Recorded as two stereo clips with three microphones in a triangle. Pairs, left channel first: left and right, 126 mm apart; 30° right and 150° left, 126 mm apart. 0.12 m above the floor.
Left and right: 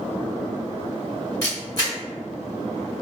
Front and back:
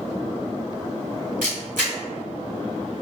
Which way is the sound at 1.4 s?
150° left.